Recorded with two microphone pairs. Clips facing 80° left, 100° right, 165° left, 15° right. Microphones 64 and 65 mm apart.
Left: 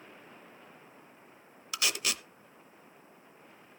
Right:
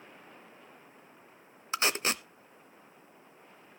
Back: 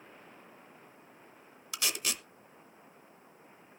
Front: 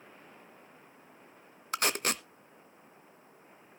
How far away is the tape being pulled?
About 0.6 m.